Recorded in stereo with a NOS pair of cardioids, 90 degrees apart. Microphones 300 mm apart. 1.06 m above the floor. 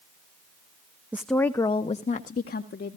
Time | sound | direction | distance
1.1 | a woman speaking | 5° right | 0.7 m